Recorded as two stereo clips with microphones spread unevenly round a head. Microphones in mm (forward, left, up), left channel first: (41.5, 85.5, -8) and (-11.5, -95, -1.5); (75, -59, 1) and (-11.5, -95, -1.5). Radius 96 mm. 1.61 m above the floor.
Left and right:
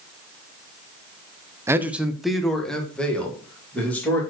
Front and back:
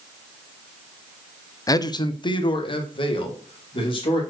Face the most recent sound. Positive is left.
turn(degrees=-10)